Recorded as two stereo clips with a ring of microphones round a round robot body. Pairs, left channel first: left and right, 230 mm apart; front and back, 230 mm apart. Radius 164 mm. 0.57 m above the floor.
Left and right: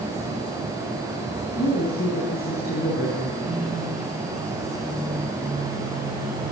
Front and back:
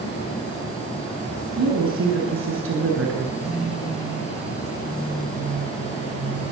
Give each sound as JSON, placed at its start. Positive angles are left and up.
{"t": 1.6, "sound": "a woman speaking", "azimuth_deg": 155, "distance_m": 6.5}
{"t": 3.4, "sound": "a phone buzzing", "azimuth_deg": -130, "distance_m": 9.0}